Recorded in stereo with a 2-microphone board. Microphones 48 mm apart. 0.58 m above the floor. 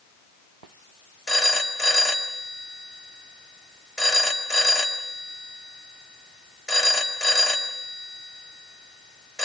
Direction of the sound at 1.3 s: 5° left (ahead or behind).